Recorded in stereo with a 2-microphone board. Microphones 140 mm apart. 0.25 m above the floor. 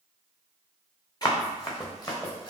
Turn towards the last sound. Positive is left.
turn(degrees=35)  # may be behind; listen again after turning